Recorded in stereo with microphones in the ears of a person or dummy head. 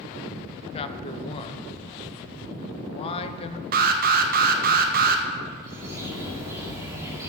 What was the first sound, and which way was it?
A man speaking, 30° left (ahead or behind).